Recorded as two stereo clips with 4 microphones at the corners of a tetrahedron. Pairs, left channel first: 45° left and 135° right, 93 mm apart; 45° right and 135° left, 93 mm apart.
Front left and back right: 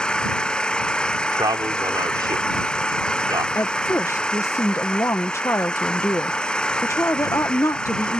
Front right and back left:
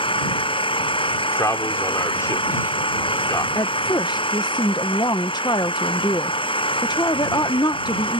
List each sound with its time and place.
0.0 s an engine running: 35° right
1.1 s a man speaking: 100° right
3.5 s a woman speaking: 10° right